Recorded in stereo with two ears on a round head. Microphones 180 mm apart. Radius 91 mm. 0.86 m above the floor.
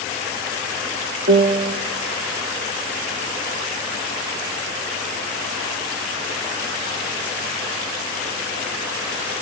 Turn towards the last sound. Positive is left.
turn(degrees=-45)  # may be behind; listen again after turning